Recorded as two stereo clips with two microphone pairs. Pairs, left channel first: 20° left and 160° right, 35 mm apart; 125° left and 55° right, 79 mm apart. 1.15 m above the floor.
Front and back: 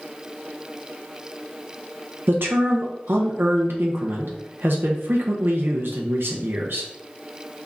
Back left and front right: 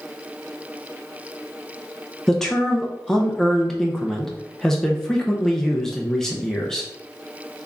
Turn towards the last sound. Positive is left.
turn(degrees=-150)